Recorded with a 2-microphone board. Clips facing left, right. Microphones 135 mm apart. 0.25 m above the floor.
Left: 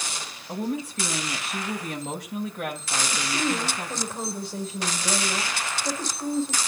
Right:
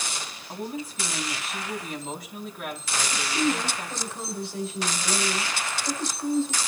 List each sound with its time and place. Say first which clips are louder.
0.5 s a woman speaking: left 5 dB; 75° left (ahead or behind), 6 m
3.1 s a woman speaking: right 2 dB; 45° left (ahead or behind), 3.5 m